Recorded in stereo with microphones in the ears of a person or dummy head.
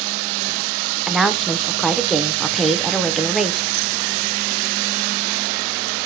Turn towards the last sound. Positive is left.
turn(degrees=0)  # may be behind; listen again after turning